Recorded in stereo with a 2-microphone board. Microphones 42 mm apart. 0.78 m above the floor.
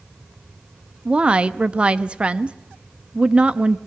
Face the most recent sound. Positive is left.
turn(degrees=-30)  # may be behind; listen again after turning